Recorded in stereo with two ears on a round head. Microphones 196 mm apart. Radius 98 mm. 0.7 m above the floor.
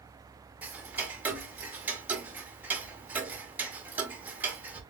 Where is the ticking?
10° right (ahead or behind), 0.7 m.